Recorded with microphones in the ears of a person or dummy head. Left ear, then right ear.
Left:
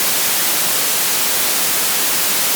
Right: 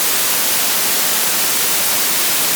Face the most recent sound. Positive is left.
No sound to turn to.